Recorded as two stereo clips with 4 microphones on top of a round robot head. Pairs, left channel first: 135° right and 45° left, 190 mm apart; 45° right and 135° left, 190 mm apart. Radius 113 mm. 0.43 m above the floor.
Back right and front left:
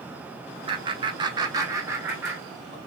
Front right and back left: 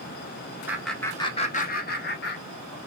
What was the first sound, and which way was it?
Laughter, 70° left.